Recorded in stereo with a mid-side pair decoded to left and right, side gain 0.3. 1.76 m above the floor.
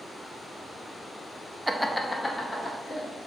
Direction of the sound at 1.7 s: 20° right.